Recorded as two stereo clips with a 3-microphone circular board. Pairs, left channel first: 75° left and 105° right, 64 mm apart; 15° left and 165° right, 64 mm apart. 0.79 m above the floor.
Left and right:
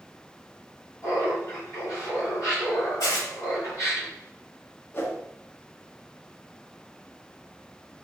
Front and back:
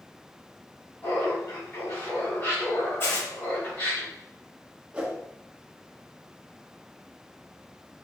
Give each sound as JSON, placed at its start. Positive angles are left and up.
{"t": 1.0, "sound": "laughter", "azimuth_deg": 55, "distance_m": 2.0}
{"t": 3.0, "sound": "tearing paper", "azimuth_deg": 65, "distance_m": 1.6}
{"t": 4.9, "sound": "a whoosh", "azimuth_deg": 125, "distance_m": 0.9}